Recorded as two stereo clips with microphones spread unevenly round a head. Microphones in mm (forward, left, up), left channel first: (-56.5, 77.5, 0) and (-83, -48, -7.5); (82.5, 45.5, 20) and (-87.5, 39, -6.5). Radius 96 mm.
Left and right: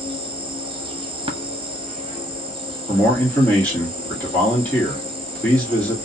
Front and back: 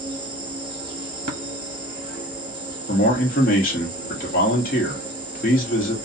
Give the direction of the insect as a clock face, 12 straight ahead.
4 o'clock.